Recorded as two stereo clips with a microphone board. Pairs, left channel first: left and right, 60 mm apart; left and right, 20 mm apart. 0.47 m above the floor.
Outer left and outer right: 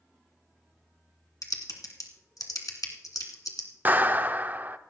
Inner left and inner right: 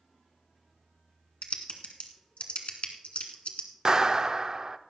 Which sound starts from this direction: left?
Typing on a keyboard, at 1.4 s.